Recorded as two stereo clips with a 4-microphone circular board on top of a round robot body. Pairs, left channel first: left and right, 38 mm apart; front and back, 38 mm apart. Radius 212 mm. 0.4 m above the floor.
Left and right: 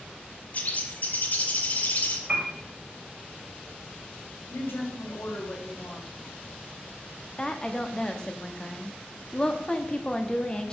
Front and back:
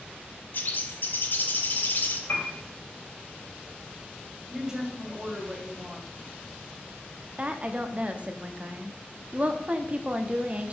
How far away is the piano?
About 3 m.